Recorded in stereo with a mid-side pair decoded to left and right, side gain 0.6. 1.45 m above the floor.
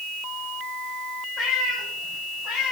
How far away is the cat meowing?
About 4.5 m.